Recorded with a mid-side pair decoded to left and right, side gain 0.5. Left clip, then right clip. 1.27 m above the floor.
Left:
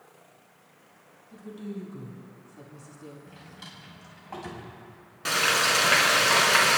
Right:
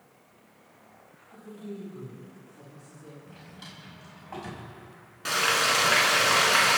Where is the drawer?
5° left, 5.5 m.